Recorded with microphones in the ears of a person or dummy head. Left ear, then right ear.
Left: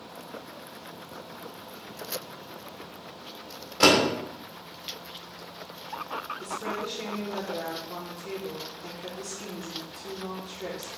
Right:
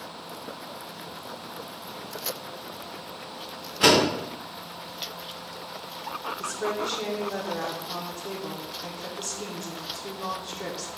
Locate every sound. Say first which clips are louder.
3.8 s a door slam: right 1 dB; 35° left (ahead or behind), 1.7 m
6.4 s a woman speaking: right 4 dB; 65° right (ahead or behind), 1.0 m